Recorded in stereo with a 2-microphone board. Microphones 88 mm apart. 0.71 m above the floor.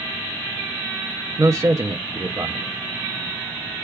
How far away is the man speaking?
About 0.5 m.